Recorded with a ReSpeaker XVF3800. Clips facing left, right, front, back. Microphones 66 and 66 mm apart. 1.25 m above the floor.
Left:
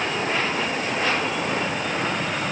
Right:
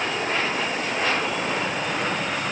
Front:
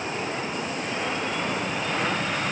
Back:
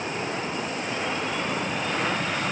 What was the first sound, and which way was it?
Only background noise.